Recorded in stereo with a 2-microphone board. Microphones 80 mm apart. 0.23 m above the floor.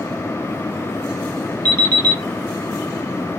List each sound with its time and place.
1.6 s an alarm clock: 65° right (ahead or behind), 0.8 m